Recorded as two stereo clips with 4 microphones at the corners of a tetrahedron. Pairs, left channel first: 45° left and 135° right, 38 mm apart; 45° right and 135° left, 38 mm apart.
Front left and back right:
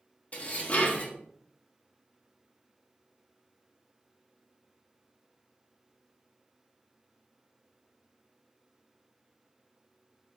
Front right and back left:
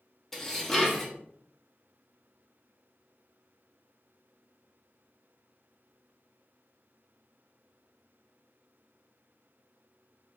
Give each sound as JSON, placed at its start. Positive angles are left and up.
{"t": 0.3, "sound": "dishes clattering", "azimuth_deg": 35, "distance_m": 0.7}